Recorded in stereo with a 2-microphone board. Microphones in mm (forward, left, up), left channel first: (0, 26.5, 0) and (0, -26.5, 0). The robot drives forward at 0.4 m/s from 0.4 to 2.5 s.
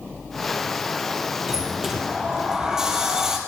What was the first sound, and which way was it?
A sliding door, 10° right (ahead or behind).